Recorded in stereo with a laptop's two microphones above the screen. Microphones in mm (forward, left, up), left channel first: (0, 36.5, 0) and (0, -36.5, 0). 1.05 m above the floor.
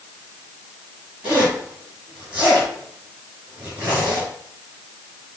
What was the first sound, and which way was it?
A zipper, 25° right (ahead or behind).